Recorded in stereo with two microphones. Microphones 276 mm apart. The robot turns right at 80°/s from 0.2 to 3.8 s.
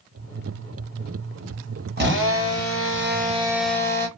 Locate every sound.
2.0 s a drill: 135° right, 1.2 m; by 4.1 s 10° left, 1.2 m